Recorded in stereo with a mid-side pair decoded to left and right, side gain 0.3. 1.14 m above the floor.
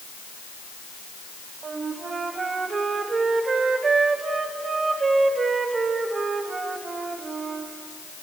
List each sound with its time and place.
1.6 s a flute: 60° right, 2 m